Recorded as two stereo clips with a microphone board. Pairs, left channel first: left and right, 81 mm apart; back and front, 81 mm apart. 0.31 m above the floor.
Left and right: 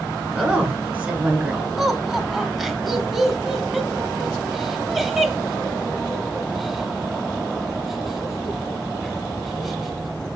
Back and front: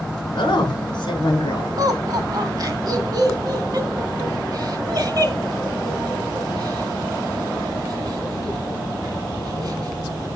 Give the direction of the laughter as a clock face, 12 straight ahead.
12 o'clock.